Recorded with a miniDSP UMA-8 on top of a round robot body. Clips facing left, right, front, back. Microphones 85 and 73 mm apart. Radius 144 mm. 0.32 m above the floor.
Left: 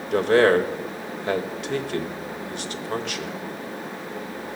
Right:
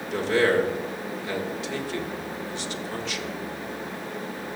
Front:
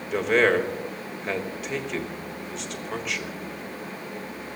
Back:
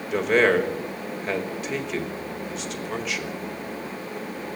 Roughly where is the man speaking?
Left.